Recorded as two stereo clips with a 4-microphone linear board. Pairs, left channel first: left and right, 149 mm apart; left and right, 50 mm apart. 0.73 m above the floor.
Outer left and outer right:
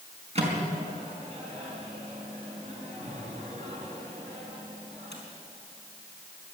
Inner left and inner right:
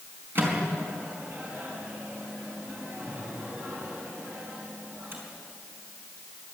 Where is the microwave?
45° right (ahead or behind), 4.5 m.